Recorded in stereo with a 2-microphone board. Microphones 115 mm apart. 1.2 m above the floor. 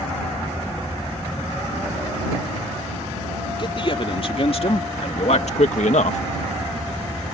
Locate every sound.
3.6 s a man speaking: 45° left (ahead or behind); by 6.2 s 70° left (ahead or behind)